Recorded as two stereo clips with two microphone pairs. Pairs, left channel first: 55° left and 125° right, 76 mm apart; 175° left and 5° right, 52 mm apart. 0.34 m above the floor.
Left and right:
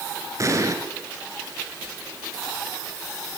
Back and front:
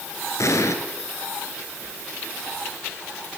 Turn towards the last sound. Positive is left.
turn(degrees=-170)